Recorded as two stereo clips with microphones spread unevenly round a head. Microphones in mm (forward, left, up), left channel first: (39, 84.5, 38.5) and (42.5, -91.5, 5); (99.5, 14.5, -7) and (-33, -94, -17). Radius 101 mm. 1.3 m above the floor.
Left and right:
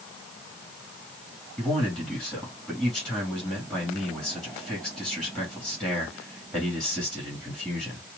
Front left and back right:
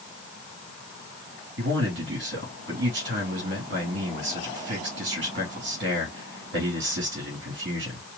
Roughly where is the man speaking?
Behind.